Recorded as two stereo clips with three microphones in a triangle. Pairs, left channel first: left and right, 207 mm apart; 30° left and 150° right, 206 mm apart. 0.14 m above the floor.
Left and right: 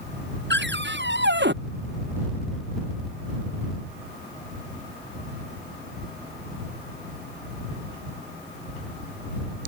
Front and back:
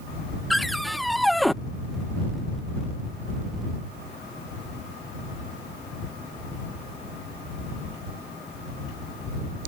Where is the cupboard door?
60° right.